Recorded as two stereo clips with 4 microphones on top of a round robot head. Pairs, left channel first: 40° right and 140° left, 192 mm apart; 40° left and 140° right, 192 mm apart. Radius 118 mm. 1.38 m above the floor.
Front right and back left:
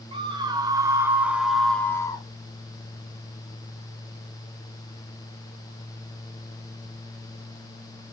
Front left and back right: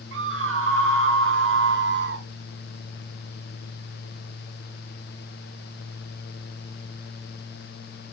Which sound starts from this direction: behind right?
A scream, at 0.1 s.